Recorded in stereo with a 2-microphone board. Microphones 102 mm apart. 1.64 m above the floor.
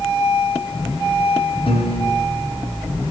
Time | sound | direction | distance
1.7 | a piano | 65° left (ahead or behind) | 4.5 m